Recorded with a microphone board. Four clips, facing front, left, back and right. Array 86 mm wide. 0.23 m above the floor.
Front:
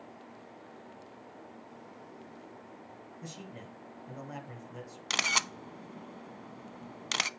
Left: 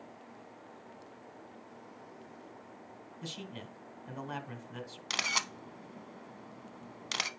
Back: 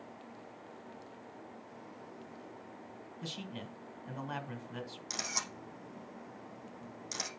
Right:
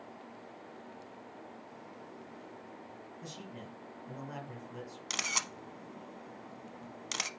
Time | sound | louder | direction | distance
3.2 | a man speaking | left 3 dB, back 3 dB | 135° left | 2 m
5.1 | a camera shutter | left 3 dB, front 12 dB | 10° left | 0.7 m